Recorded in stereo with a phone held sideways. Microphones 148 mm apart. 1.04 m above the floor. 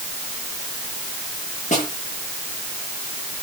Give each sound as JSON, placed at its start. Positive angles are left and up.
{"t": 1.7, "sound": "a snare drum", "side_deg": 50, "distance_m": 10.0}